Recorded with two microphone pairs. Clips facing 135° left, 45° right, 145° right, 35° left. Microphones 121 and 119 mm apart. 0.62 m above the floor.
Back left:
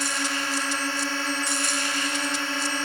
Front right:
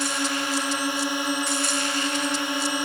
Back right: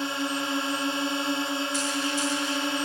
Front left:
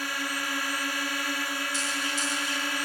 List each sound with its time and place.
0.0 s a drone: 110° right